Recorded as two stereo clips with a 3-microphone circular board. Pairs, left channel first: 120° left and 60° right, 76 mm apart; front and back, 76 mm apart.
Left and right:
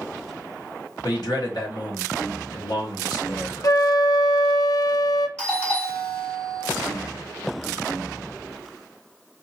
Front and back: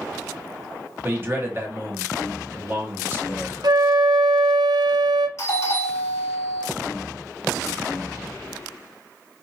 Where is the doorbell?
45° left, 3 m.